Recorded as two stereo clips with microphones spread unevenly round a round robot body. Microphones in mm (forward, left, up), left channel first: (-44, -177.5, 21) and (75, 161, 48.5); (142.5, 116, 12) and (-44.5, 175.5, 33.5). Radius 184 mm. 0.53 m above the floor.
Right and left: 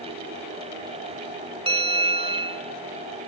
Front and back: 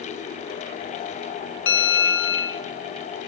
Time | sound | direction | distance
1.7 | a bell | 10° right | 0.6 m